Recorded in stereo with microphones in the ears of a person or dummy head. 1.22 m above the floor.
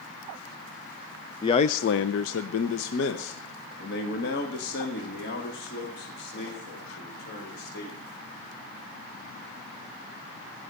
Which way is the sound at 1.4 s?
30° left (ahead or behind).